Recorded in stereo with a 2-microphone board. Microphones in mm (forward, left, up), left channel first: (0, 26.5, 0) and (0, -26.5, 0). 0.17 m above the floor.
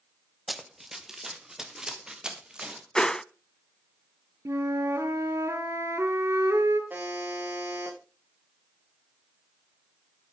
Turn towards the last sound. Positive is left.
turn(degrees=-35)  # may be behind; listen again after turning